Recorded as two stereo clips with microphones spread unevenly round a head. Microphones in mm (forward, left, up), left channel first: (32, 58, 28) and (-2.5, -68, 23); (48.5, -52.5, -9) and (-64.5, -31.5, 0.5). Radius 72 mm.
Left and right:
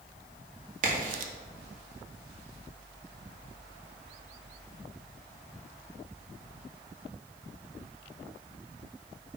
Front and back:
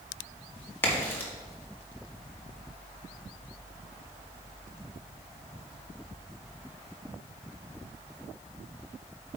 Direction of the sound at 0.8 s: 80° right.